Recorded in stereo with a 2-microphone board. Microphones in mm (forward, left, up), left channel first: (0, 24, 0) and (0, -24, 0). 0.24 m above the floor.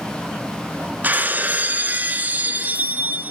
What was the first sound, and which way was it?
Breaking glass, 40° right (ahead or behind).